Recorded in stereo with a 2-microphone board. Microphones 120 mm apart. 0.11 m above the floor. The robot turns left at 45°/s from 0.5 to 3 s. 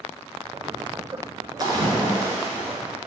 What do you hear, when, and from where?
1.6 s a splash: 105° right, 0.8 m; by 2.8 s 155° right, 0.8 m